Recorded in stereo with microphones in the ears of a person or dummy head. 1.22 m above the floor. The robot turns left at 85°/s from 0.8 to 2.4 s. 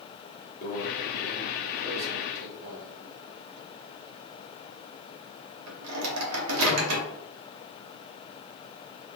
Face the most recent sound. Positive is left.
turn(degrees=-85)